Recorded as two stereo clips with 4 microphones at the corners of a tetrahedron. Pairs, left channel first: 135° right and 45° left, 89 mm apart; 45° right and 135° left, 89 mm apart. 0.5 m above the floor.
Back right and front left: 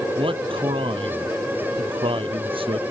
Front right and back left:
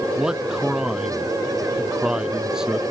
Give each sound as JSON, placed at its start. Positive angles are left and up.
{"t": 0.2, "sound": "a man speaking", "azimuth_deg": 50}